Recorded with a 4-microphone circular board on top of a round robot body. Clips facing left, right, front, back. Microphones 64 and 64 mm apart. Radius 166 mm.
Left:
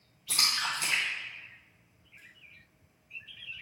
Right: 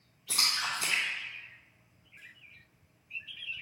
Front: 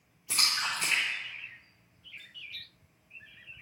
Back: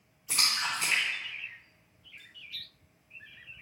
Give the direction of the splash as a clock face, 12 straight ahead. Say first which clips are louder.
Left 1 dB, even; 3 o'clock.